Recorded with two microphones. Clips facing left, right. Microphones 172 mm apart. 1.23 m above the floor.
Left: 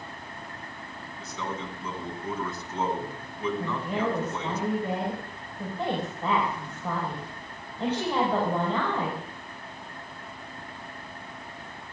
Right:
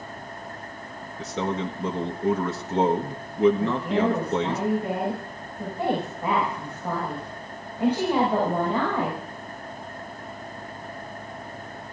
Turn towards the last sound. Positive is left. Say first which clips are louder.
# right 6 dB
turn(degrees=-10)  # may be behind; listen again after turning